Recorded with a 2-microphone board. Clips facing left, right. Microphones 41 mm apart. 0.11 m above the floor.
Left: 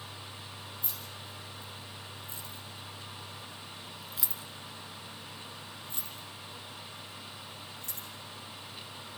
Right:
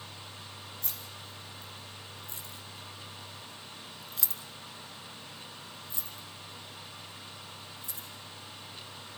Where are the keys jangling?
65° right (ahead or behind), 5 m; by 8.1 s 60° left (ahead or behind), 6.5 m.